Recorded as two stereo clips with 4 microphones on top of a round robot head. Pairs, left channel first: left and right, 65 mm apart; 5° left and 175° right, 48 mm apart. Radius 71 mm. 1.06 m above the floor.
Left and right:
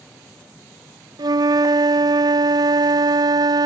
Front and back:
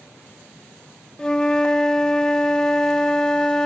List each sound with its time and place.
1.2 s a flute: 70° right, 0.6 m